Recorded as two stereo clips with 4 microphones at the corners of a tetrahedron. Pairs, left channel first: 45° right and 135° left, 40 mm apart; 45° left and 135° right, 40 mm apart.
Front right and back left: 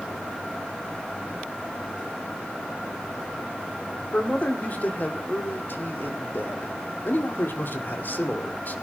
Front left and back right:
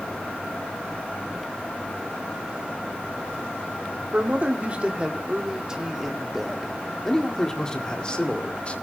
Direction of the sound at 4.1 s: 90° right.